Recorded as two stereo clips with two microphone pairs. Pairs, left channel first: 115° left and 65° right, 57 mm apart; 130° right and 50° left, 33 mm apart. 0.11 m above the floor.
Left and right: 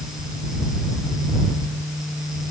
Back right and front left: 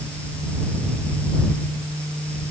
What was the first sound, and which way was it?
Only background noise.